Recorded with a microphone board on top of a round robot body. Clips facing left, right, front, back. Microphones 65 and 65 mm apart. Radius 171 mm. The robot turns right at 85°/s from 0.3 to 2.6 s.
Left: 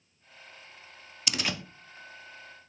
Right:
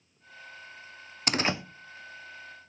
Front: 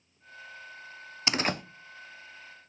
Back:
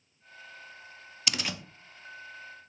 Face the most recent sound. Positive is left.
turn(degrees=60)